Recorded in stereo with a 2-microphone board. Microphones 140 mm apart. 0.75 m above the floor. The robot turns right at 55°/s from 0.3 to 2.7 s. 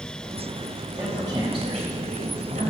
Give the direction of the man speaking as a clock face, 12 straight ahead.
6 o'clock.